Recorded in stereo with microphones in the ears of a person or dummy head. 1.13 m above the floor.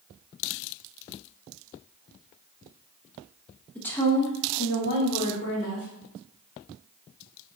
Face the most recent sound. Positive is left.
turn(degrees=60)  # may be behind; listen again after turning